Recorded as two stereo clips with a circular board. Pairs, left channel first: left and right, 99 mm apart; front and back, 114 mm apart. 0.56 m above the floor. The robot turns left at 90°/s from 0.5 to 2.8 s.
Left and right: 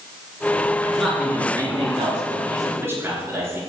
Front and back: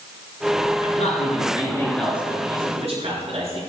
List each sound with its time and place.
0.8 s a man speaking: 20° left, 8 m; by 3.6 s 155° right, 8 m